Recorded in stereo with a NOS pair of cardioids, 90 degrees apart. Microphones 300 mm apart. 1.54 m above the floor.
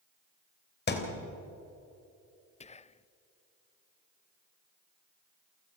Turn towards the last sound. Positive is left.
turn(degrees=20)